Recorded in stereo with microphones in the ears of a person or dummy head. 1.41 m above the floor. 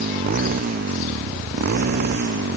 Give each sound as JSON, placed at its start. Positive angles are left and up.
{"t": 0.0, "sound": "a motorcycle", "side_deg": -40}